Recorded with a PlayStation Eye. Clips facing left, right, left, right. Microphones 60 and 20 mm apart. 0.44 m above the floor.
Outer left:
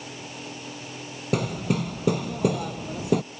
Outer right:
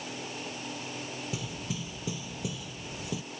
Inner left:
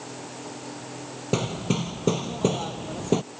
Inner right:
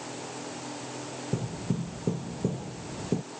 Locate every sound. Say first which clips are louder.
1.3 s hammering: outer left 17 dB, inner left 8 dB; 65° left (ahead or behind)